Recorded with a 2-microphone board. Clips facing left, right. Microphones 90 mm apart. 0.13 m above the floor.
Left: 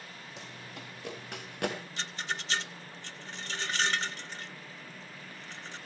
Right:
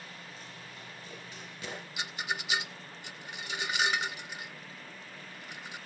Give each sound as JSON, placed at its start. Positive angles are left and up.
{"t": 0.4, "sound": "running footsteps", "side_deg": 65, "distance_m": 5.5}
{"t": 2.0, "sound": "a rattle", "side_deg": -10, "distance_m": 0.5}